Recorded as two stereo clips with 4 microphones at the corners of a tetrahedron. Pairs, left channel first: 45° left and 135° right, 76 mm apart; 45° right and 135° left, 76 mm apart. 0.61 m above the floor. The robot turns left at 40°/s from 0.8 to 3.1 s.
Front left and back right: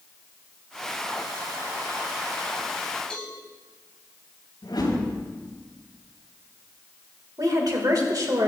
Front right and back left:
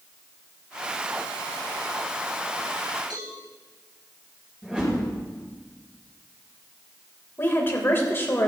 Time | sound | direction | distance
3.1 | a cowbell | 120° left | 4 m
4.6 | a whoosh | 60° left | 4.5 m
7.4 | a woman speaking | 105° right | 2.5 m